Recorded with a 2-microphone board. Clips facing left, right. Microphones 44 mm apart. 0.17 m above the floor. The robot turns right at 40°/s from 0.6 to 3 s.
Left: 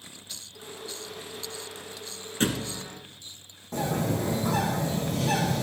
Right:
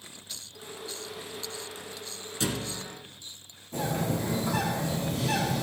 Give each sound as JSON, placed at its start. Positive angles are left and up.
{"t": 2.4, "sound": "a thud", "side_deg": 40, "distance_m": 1.0}
{"t": 3.7, "sound": "a bird", "side_deg": 60, "distance_m": 6.5}